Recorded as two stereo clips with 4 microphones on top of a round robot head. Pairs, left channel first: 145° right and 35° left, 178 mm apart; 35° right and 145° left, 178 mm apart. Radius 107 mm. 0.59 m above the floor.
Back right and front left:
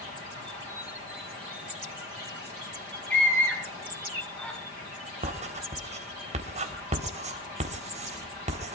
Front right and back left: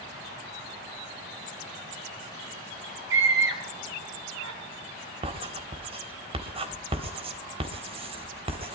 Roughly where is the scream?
Behind left.